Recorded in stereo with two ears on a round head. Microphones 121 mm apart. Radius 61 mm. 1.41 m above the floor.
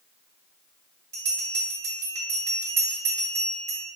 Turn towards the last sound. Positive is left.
turn(degrees=-20)  # may be behind; listen again after turning